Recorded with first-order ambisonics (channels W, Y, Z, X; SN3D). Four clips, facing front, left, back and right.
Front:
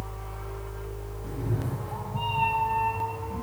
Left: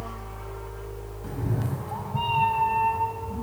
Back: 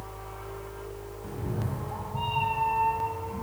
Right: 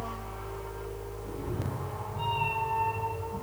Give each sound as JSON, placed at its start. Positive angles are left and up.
{"t": 1.2, "sound": "a cat meowing", "azimuth_deg": 90, "distance_m": 1.7}